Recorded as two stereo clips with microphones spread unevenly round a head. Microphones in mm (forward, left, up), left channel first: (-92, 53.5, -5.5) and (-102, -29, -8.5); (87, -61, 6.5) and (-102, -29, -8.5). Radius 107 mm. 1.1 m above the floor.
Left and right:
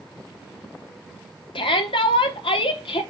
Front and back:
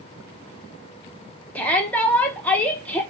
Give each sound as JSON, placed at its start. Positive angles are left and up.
{"t": 1.6, "sound": "a shout", "azimuth_deg": 75, "distance_m": 0.9}